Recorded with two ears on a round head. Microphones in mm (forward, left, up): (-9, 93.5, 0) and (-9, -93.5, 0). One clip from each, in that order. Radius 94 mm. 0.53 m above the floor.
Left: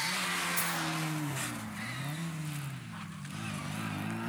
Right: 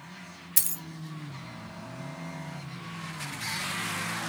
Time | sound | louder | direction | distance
0.6 | a dropped coin | left 2 dB | 50° right (ahead or behind) | 0.5 m